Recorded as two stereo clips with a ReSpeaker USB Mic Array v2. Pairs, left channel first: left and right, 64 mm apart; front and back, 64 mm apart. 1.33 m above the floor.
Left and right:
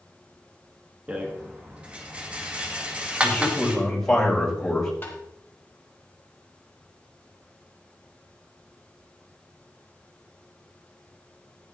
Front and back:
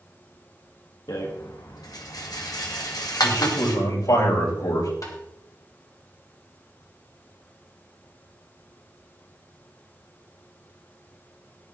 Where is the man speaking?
10° left, 5 m.